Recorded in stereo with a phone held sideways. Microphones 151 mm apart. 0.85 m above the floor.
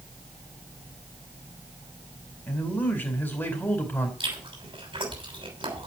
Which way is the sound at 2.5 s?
15° left (ahead or behind).